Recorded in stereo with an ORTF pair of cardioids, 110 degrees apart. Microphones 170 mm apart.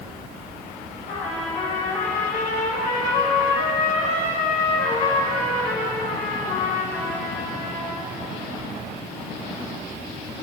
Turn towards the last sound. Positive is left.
turn(degrees=60)